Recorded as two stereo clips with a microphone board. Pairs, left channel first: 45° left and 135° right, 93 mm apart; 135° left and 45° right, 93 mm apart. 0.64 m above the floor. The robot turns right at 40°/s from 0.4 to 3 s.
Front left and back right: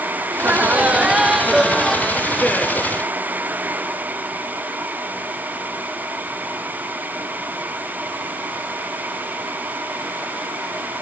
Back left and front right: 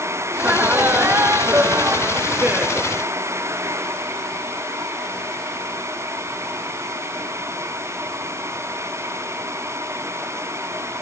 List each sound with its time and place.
0.3 s laughter: 95° right, 0.5 m; by 2.9 s 5° left, 0.5 m